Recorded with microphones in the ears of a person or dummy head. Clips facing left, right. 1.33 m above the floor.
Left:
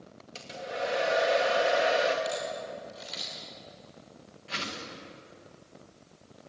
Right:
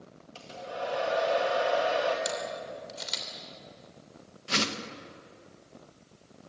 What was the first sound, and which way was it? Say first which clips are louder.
A hair dryer: left 2 dB; 20° left (ahead or behind).